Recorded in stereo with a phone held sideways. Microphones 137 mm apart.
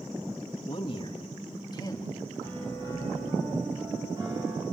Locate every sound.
0.7 s a man speaking: 40° left (ahead or behind), 2 m; by 2.1 s 25° left (ahead or behind), 2.5 m
2.4 s a piano: 30° right (ahead or behind), 9 m